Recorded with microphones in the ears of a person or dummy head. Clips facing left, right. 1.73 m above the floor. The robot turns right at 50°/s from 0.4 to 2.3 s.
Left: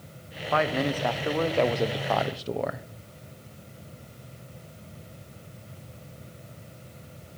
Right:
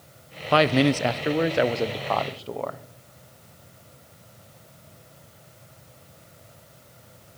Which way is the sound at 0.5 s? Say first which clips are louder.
Right 6 dB; 65° right.